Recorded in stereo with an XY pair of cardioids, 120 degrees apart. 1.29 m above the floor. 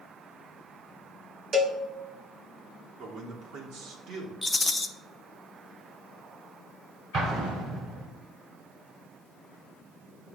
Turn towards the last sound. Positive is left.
turn(degrees=-60)